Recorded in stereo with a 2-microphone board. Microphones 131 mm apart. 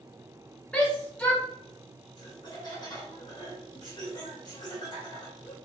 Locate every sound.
0.7 s a shout: 10° left (ahead or behind), 1.2 m
2.2 s laughter: 35° left (ahead or behind), 1.7 m